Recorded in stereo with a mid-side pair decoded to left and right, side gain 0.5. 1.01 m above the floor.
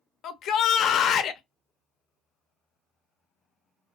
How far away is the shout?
About 0.5 m.